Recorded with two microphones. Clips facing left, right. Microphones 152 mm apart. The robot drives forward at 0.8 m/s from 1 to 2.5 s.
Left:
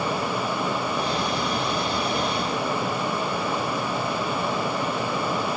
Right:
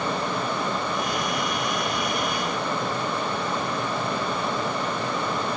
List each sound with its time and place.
Only background noise.